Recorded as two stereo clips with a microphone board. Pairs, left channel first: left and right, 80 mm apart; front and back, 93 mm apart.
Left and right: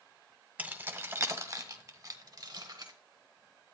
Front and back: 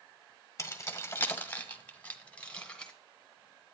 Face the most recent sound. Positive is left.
turn(degrees=-80)